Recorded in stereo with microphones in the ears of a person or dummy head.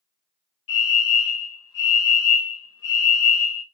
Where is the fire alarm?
65° left (ahead or behind), 3.5 m.